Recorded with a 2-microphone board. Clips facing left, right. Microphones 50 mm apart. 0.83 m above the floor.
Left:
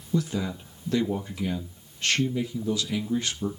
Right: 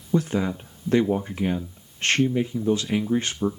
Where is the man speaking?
35° right (ahead or behind), 0.7 m.